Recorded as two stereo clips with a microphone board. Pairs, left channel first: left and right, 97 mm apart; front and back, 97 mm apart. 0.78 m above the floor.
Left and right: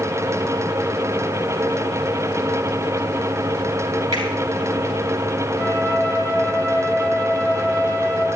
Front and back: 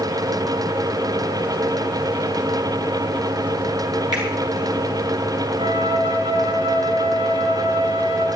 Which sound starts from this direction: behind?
A flute, at 5.6 s.